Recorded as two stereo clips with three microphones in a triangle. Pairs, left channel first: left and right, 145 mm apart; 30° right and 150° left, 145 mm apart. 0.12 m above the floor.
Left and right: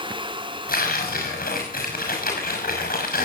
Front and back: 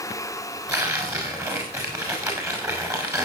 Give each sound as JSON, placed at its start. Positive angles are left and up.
{"t": 0.7, "sound": "tearing paper", "azimuth_deg": 80, "distance_m": 6.0}